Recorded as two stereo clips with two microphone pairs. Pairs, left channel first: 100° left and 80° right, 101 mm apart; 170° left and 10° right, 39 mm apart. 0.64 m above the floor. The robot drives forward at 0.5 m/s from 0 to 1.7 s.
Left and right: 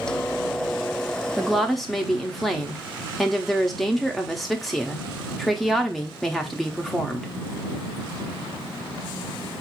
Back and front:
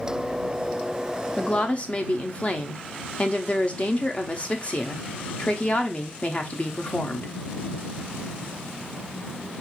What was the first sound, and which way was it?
A woman speaking, 160° right.